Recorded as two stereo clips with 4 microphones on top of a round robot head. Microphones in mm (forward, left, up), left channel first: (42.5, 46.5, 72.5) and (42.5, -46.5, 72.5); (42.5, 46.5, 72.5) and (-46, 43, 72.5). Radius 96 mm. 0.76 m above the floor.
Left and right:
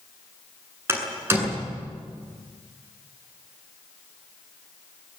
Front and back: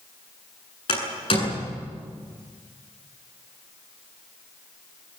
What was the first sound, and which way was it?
A door slam, 25° right.